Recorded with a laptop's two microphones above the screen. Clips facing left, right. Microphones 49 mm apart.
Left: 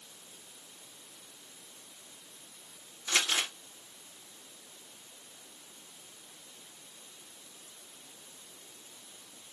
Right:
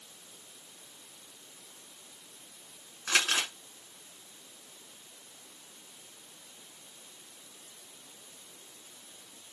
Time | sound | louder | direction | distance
3.1 | crumpling | right 2 dB | 70° right (ahead or behind) | 2.0 m